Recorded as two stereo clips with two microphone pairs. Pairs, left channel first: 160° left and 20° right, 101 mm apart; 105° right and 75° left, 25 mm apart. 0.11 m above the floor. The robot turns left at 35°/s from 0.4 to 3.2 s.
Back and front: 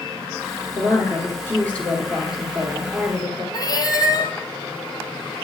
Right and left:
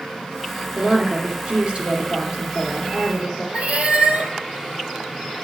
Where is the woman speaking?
120° left, 2.5 m; by 3.4 s 35° left, 2.5 m.